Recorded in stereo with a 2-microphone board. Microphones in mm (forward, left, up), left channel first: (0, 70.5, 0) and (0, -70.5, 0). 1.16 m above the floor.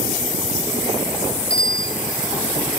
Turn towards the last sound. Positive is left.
turn(degrees=5)  # may be behind; listen again after turning